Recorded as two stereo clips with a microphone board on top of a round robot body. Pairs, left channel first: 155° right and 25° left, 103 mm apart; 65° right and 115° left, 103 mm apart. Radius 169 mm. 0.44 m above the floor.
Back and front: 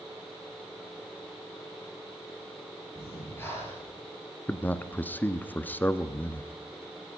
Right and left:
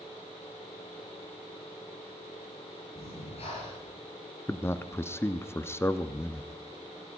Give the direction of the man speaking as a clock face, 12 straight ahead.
3 o'clock.